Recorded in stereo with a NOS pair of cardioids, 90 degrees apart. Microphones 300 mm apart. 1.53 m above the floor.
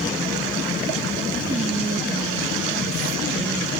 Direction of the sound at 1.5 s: 20° right.